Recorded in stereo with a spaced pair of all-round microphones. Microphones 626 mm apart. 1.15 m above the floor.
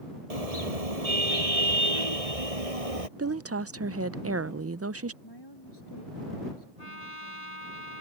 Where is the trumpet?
85° left.